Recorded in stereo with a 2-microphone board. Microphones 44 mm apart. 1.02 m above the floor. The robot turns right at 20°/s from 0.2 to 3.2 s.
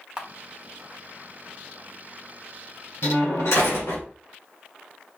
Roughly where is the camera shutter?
Centre.